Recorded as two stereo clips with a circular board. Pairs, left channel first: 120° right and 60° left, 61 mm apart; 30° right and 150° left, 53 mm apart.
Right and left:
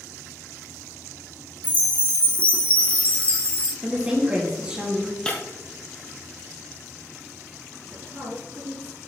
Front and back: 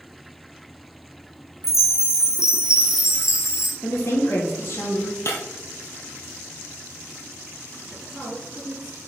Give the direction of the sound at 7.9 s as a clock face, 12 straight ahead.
10 o'clock.